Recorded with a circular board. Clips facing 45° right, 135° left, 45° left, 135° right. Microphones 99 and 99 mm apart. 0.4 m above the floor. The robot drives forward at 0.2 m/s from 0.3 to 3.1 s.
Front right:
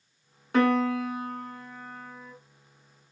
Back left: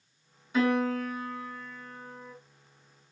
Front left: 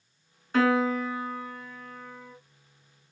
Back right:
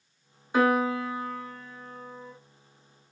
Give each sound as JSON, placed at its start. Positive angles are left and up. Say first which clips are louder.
{"t": 0.5, "sound": "a piano", "louder": "front right 3 dB, even", "azimuth_deg": -60, "distance_m": 1.3}